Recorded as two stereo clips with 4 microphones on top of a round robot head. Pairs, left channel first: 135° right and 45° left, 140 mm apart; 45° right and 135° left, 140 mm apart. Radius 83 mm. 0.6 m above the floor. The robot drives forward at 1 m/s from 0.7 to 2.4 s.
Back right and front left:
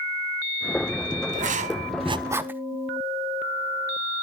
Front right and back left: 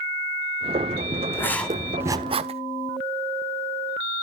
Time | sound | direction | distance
1.3 | writing | 25° left | 1.1 m